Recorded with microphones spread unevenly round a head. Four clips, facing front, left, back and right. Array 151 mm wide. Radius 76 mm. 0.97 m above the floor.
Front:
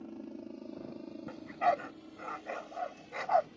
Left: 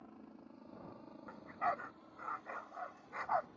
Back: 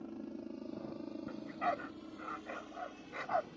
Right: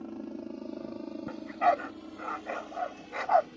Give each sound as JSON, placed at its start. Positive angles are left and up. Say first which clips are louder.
{"t": 0.0, "sound": "a helicopter", "louder": "right 16 dB, even", "azimuth_deg": -85}
{"t": 1.3, "sound": "a dog barking", "louder": "right 12 dB, front 7 dB", "azimuth_deg": -65}